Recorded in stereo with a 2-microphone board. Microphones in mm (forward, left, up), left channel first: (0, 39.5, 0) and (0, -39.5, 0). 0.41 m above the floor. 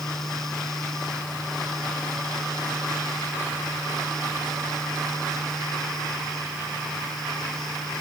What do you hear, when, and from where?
Only background noise.